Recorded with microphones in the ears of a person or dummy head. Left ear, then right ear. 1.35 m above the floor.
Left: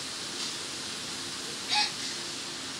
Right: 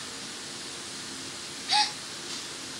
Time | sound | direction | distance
1.7 | a gasp | 35° right (ahead or behind) | 1.3 m